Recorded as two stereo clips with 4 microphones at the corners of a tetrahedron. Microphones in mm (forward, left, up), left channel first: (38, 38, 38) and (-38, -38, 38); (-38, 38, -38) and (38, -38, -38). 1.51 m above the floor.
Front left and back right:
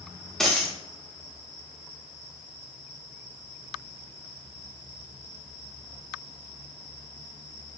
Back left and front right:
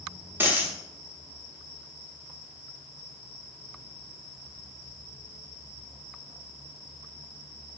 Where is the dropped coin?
35° right, 1.1 m.